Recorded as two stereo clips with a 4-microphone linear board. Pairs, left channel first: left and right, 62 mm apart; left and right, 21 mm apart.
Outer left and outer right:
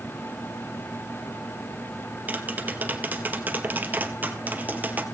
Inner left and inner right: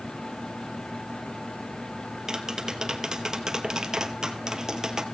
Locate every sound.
2.3 s tapping: 30° right (ahead or behind), 1.5 m